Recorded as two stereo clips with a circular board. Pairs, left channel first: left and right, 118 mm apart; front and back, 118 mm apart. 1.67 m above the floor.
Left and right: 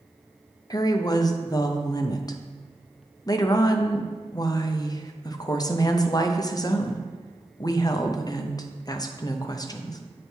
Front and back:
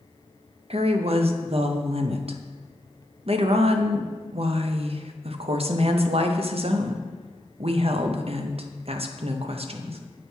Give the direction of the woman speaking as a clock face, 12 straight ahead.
7 o'clock.